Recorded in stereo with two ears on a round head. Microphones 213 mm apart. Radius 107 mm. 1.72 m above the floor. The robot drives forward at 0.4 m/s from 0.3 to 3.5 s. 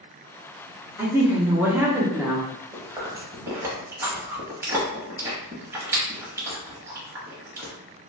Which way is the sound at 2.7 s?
15° right (ahead or behind).